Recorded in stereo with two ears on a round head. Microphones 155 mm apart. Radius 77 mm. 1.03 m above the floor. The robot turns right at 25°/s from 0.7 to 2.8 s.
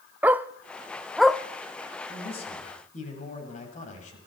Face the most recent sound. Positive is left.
turn(degrees=45)  # may be behind; listen again after turning